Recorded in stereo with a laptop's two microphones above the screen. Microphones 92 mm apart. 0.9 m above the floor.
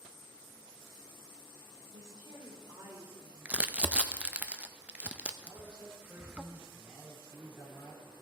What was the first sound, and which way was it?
A woman speaking, 40° right (ahead or behind).